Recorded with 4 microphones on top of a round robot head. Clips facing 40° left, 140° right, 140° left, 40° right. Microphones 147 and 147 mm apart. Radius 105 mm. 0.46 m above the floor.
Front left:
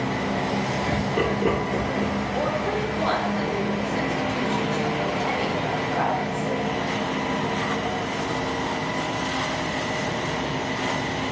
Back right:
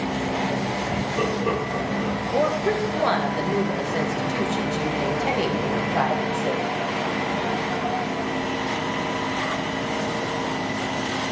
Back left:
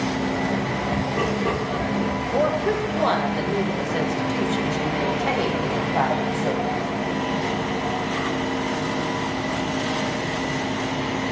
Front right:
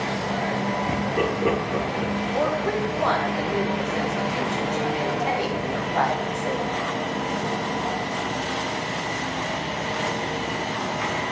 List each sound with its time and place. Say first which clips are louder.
0.9 s laughter: front left 2 dB, back left 1 dB; 40° left, 4 m
2.3 s a woman speaking: back right 7 dB, back left 4 dB; 160° right, 2.5 m